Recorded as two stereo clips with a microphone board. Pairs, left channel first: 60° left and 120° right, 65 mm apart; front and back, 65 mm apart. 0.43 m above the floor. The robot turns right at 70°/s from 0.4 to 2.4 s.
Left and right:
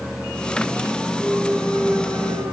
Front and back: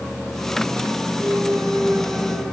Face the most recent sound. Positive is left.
turn(degrees=-100)